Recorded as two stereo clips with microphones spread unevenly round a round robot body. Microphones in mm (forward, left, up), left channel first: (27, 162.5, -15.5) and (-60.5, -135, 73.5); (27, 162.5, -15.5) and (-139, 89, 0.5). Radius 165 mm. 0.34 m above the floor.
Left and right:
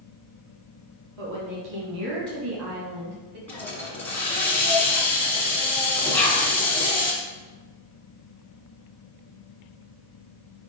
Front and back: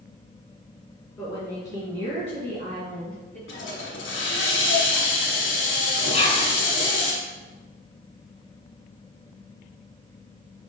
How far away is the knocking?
I don't hear knocking.